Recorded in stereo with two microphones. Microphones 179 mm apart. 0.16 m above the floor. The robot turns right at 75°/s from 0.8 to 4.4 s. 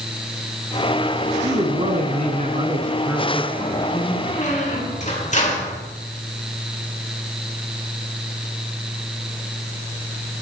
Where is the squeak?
55° left (ahead or behind), 4 m; by 5.8 s 40° left (ahead or behind), 4 m.